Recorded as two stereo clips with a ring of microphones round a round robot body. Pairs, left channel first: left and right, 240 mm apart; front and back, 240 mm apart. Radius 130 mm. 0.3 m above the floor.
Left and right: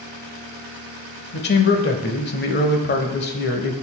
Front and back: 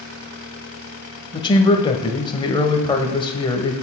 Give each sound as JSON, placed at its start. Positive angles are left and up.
{"t": 1.3, "sound": "a man speaking", "azimuth_deg": 65, "distance_m": 1.1}